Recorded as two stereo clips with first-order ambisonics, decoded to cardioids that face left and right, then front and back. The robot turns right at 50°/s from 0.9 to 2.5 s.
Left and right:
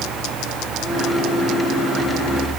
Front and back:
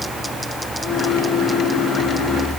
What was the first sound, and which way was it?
Only background noise.